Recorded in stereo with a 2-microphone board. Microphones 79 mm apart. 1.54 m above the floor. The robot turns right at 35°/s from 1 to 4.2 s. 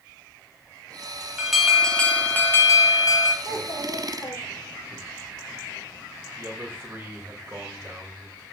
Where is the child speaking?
70° left (ahead or behind), 2.5 m; by 5.0 s 45° left (ahead or behind), 2.5 m.